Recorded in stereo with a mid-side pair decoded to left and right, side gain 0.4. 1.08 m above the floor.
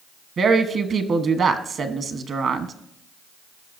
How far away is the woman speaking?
About 1.1 m.